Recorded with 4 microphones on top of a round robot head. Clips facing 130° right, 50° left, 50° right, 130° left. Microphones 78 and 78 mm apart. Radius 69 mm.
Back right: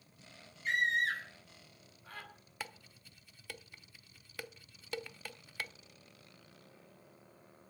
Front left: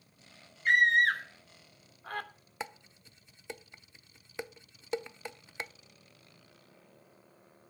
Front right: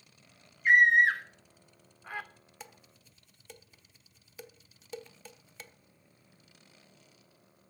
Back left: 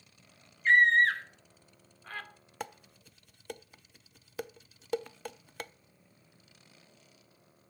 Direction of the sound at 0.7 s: 25° left.